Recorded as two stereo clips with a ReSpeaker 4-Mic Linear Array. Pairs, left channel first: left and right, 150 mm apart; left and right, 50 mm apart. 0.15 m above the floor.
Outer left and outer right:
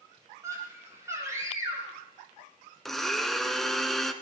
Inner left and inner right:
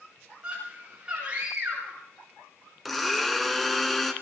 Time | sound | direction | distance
0.4 | a scream | 20° right (ahead or behind) | 9.5 m
2.9 | a blender | centre (ahead or behind) | 1.7 m